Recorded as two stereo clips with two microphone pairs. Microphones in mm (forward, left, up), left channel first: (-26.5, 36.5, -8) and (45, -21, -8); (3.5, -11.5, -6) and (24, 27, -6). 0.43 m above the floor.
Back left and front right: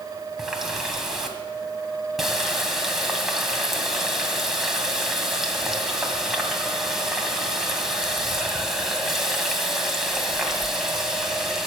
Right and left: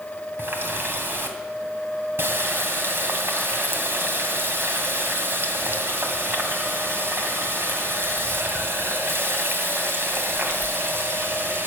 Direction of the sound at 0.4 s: 45° left.